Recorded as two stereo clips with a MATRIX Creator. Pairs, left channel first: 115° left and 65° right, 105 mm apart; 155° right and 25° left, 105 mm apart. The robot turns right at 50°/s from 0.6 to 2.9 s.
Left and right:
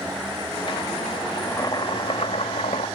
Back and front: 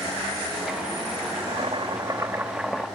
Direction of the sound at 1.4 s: 40° left.